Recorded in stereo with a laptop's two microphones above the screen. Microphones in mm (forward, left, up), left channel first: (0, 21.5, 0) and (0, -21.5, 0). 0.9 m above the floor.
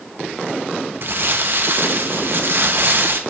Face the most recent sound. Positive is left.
turn(degrees=-55)  # may be behind; listen again after turning